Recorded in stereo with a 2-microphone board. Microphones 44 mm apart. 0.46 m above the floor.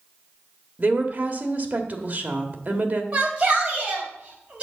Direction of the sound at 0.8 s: 40° right (ahead or behind).